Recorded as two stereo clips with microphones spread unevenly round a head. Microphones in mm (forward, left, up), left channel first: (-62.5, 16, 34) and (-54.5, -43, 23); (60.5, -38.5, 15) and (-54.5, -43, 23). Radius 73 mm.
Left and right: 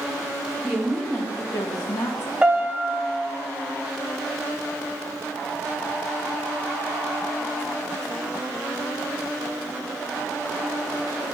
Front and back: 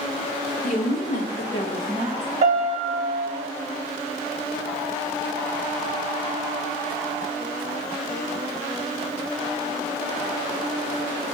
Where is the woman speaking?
5° right, 1.5 m; by 2.3 s 125° left, 1.1 m.